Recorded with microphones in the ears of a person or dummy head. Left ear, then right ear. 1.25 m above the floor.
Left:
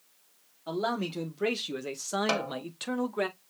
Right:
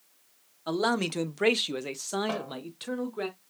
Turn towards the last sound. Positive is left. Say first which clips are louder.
# left 4 dB
turn(degrees=70)  # may be behind; listen again after turning